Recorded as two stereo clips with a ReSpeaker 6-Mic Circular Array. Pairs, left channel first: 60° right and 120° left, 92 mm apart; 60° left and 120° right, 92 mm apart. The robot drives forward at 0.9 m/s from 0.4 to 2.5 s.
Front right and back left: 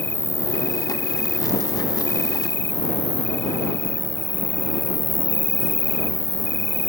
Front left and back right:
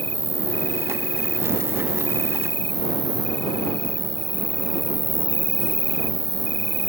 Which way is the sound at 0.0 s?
Straight ahead.